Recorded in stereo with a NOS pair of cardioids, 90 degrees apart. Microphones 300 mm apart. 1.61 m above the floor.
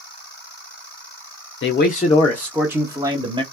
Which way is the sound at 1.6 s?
45° left.